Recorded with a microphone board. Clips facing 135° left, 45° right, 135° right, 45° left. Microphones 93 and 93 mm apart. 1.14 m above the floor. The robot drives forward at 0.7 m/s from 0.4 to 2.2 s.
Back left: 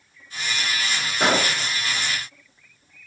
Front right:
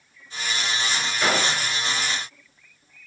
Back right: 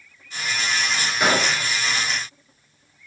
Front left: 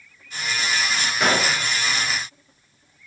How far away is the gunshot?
About 1.4 m.